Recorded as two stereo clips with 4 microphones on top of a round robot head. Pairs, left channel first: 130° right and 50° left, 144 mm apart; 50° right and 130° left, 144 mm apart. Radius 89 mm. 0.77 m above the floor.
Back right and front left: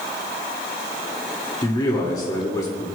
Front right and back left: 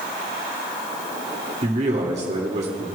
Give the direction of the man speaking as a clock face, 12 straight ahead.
6 o'clock.